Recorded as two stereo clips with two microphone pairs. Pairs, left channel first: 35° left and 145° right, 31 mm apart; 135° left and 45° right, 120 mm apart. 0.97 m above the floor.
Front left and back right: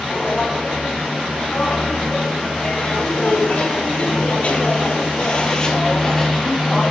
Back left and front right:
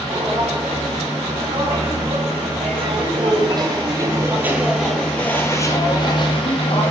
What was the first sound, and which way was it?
Footsteps, 25° right.